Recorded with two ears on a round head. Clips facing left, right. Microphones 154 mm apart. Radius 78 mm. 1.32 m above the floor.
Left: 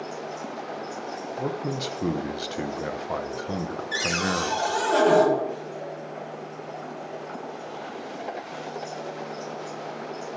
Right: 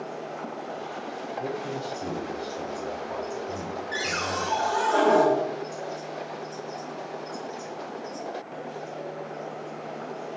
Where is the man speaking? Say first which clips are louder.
Left 3 dB; 75° left (ahead or behind), 0.6 m.